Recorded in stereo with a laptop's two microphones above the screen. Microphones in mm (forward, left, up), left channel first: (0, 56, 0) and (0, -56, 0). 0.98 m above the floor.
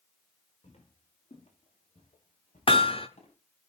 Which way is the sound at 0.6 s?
75° left (ahead or behind).